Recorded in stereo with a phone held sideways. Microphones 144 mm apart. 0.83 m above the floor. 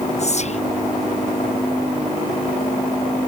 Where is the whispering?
50° left (ahead or behind).